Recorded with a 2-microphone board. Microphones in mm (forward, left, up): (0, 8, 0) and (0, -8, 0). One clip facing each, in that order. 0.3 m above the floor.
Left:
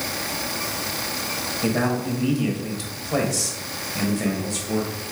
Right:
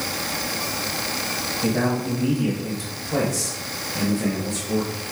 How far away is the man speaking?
About 1.2 m.